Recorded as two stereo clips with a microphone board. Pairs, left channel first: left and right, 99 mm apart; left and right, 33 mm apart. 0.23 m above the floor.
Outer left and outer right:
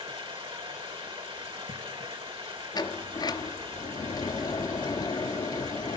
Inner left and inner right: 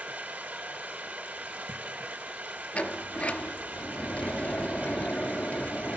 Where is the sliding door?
45° left (ahead or behind), 0.9 m.